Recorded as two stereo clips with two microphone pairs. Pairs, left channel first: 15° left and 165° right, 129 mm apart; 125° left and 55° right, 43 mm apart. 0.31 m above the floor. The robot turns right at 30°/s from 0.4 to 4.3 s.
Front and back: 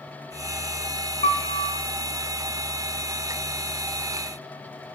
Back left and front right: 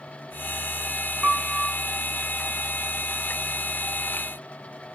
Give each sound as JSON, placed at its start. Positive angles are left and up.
{"t": 1.2, "sound": "a piano", "azimuth_deg": 0, "distance_m": 0.6}